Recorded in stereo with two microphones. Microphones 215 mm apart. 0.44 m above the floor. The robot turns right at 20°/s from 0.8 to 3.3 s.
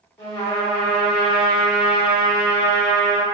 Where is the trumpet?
90° left, 1.1 m; by 3.2 s 135° left, 1.1 m.